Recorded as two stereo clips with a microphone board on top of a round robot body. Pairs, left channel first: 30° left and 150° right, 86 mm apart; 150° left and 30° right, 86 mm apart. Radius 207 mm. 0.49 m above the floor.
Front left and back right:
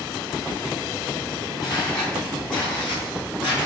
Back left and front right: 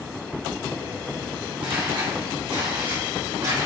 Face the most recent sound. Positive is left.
turn(degrees=5)